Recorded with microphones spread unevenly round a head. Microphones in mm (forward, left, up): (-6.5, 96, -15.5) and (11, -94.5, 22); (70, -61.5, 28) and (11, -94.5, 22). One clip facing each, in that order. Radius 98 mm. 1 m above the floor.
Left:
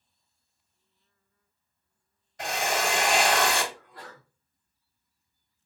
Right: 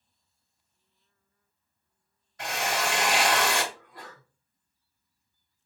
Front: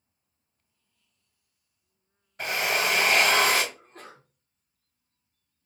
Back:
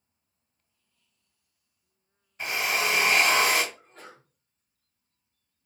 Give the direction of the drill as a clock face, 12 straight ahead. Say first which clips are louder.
Left 2 dB, front 1 dB; 11 o'clock.